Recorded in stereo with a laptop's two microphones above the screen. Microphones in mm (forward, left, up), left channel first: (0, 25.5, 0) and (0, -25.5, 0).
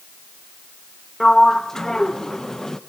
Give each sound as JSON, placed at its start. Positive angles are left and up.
{"t": 1.2, "sound": "a sliding door", "side_deg": 10, "distance_m": 0.6}